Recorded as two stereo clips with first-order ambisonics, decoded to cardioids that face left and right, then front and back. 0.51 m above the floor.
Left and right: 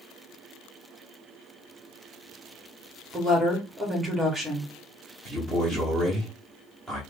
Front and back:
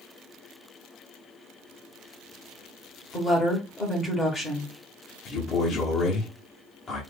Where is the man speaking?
5° left, 1.0 m.